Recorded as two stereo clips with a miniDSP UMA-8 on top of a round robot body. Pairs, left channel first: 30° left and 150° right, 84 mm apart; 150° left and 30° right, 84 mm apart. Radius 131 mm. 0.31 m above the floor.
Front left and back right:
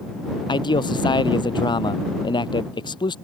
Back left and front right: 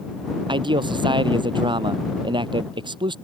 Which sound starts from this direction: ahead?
A man speaking, at 0.5 s.